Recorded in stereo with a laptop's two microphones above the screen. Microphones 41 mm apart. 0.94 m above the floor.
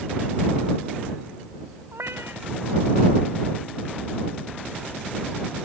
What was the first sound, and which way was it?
A cat meowing, 85° right.